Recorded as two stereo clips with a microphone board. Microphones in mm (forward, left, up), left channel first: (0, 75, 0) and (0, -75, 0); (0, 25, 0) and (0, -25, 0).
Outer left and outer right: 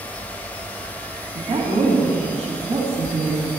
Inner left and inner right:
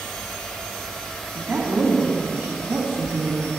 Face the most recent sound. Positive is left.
turn(degrees=-45)  # may be behind; listen again after turning